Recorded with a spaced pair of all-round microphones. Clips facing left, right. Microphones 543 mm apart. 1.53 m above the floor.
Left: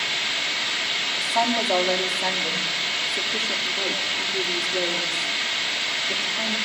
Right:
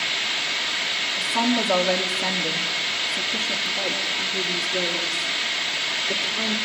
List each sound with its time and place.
1.1 s a woman speaking: 50° right (ahead or behind), 3.5 m; by 6.5 s 15° left (ahead or behind), 5.5 m